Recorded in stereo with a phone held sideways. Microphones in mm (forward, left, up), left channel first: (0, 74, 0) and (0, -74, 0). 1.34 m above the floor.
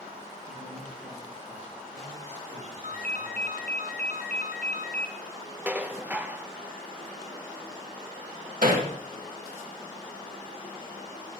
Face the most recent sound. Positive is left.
turn(degrees=-65)  # may be behind; listen again after turning